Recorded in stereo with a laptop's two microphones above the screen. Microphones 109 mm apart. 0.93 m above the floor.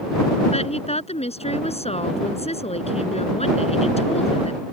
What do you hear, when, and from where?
0.5 s a woman speaking: 75° left (ahead or behind)